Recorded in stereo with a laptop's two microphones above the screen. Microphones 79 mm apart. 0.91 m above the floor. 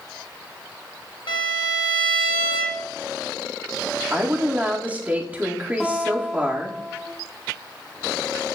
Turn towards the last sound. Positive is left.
turn(degrees=5)  # may be behind; listen again after turning